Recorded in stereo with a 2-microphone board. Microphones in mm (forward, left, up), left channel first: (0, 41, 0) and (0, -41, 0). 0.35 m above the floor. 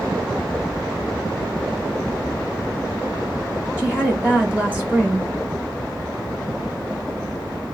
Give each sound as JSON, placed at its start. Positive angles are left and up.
{"t": 3.8, "sound": "a woman speaking", "side_deg": -15, "distance_m": 1.3}